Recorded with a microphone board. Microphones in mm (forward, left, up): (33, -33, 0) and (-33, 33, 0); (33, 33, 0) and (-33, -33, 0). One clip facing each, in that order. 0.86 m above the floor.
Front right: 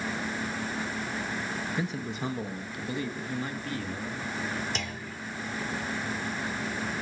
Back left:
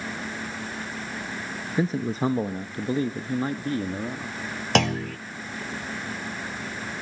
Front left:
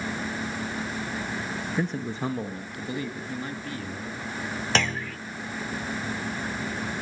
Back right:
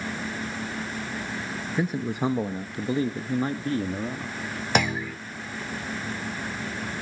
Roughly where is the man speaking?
Behind left.